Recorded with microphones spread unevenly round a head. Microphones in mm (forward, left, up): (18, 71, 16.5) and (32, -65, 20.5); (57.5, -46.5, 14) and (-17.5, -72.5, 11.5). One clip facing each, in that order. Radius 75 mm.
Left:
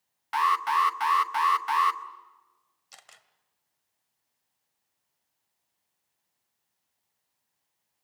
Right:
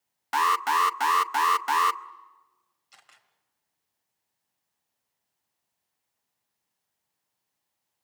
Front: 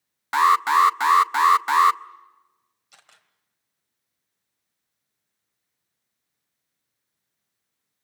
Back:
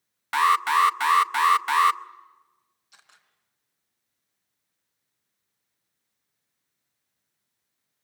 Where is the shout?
I don't hear a shout.